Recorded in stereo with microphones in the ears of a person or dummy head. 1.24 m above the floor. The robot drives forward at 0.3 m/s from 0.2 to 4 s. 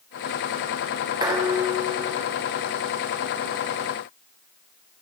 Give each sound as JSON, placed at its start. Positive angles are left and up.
{"t": 1.2, "sound": "dishes clattering", "side_deg": -25, "distance_m": 1.2}